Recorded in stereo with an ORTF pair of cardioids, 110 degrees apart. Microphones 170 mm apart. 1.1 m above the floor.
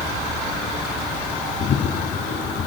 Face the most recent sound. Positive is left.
turn(degrees=55)